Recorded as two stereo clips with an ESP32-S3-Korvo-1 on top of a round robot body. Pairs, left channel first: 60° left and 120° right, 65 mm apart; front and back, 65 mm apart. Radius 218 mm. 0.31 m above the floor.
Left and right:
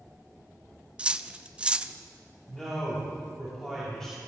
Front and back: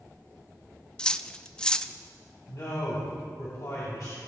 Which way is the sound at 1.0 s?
65° right.